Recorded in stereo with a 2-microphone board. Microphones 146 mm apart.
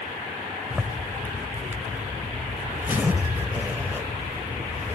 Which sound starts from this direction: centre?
A zipper, at 0.7 s.